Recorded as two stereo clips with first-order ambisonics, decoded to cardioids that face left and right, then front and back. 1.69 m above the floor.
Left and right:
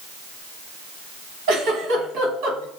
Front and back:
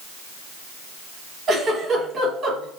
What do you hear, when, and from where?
1.5 s a giggle: 120° right, 1.7 m